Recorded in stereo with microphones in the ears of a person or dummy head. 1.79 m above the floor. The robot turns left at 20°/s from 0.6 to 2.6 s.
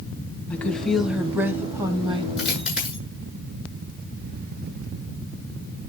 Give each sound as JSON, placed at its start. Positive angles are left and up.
{"t": 0.5, "sound": "a woman speaking", "azimuth_deg": 5, "distance_m": 1.4}
{"t": 2.4, "sound": "a dropped coin", "side_deg": 0, "distance_m": 9.5}